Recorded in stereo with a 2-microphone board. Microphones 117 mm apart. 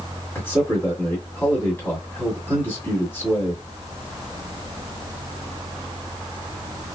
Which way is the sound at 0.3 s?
20° left (ahead or behind).